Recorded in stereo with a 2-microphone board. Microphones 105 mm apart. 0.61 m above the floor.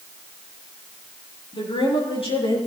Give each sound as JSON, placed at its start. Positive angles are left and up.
{"t": 1.5, "sound": "a woman speaking", "side_deg": 65, "distance_m": 9.0}